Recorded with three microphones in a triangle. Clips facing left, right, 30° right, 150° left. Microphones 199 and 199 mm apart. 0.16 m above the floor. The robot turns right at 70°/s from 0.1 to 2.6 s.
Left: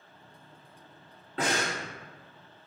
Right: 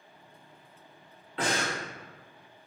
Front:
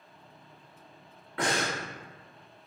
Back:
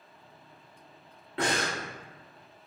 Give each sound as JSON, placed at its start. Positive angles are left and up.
{"t": 1.4, "sound": "breathing", "azimuth_deg": 100, "distance_m": 1.3}